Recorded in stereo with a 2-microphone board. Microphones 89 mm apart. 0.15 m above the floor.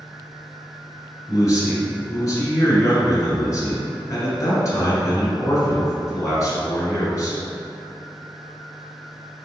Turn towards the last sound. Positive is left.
turn(degrees=40)  # may be behind; listen again after turning